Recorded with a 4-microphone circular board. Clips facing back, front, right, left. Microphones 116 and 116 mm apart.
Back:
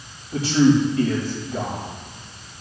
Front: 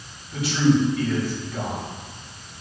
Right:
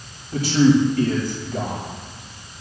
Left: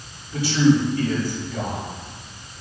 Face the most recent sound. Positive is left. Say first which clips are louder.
# back 3 dB, right 2 dB
turn(degrees=-125)